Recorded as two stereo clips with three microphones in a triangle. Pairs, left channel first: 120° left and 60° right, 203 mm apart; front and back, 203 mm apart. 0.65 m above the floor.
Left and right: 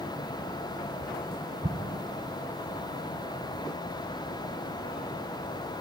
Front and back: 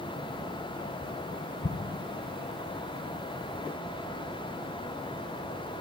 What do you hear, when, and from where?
1.6 s an explosion: 5° right, 0.6 m